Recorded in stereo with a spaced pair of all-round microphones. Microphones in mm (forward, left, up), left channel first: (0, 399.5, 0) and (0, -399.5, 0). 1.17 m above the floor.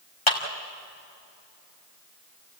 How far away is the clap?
About 2.5 m.